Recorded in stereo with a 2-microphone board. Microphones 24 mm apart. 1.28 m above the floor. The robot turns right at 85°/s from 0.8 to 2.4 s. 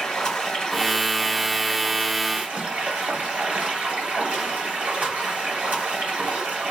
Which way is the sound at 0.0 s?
145° left.